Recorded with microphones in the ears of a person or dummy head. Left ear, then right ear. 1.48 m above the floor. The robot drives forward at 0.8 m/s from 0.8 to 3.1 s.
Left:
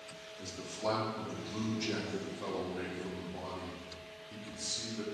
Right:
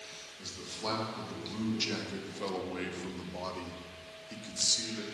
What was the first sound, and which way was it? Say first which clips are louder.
A man speaking: left 1 dB; 30° right (ahead or behind).